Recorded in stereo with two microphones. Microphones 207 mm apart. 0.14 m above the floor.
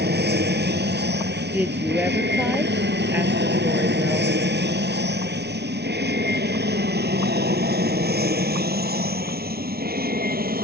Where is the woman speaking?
10° right (ahead or behind).